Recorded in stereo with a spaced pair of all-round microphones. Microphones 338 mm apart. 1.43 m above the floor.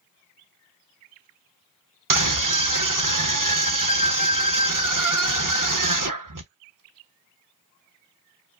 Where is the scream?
65° right (ahead or behind), 0.9 m.